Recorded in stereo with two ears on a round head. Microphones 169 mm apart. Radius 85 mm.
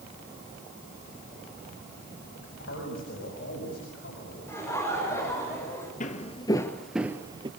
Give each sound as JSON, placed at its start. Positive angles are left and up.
{"t": 2.4, "sound": "a man speaking", "side_deg": 65, "distance_m": 7.0}
{"t": 4.5, "sound": "laughter", "side_deg": 15, "distance_m": 6.0}
{"t": 6.0, "sound": "footsteps", "side_deg": 40, "distance_m": 1.7}